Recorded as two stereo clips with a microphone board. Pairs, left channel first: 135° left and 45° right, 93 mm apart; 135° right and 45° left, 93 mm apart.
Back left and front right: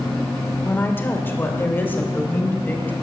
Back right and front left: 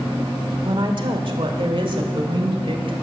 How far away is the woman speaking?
About 1.3 m.